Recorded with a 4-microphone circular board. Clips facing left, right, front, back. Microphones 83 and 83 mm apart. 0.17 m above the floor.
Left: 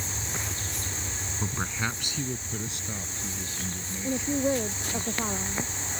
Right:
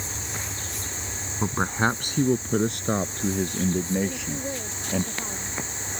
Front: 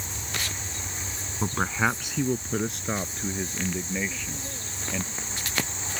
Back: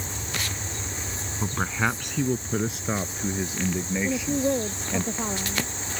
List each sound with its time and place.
1.4 s a man speaking: 70° right; by 5.0 s 100° right
4.0 s a woman speaking: 155° left